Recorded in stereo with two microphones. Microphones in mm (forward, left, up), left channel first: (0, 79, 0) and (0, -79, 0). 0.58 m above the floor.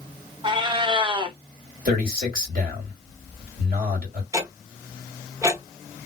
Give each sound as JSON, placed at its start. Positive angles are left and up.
{"t": 0.4, "sound": "a cat meowing", "side_deg": -30, "distance_m": 0.6}
{"t": 1.9, "sound": "a man speaking", "side_deg": -60, "distance_m": 2.0}
{"t": 4.3, "sound": "ticking", "side_deg": -15, "distance_m": 0.8}